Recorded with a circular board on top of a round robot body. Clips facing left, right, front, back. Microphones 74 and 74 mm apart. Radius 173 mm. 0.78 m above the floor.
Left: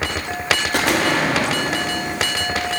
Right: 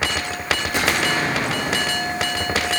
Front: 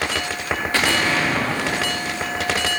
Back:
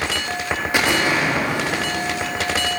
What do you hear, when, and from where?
0.7 s an explosion: 110° left, 1.6 m